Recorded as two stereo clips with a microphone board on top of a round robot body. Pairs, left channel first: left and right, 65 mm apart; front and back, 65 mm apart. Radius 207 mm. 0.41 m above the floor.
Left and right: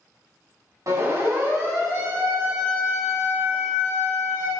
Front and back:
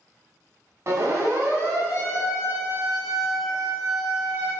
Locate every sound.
0.9 s a siren: 130° right, 5.5 m; by 4.5 s 120° right, 10 m